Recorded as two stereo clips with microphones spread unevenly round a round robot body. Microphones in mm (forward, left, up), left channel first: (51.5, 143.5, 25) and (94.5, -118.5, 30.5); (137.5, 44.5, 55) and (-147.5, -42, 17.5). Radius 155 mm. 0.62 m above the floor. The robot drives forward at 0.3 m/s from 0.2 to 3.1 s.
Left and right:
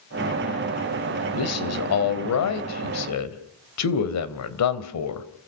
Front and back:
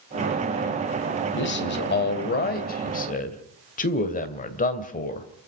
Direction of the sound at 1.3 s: 70° left.